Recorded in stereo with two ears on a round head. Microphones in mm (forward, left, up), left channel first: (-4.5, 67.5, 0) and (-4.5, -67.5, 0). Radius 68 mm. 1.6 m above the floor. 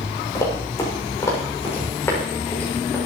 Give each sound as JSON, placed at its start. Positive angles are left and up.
{"t": 0.3, "sound": "running footsteps", "side_deg": 25, "distance_m": 7.0}